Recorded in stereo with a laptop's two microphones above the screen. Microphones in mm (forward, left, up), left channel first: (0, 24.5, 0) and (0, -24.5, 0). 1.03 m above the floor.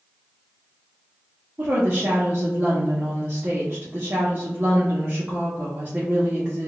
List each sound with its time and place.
1.6 s a woman speaking: 35° right (ahead or behind), 0.7 m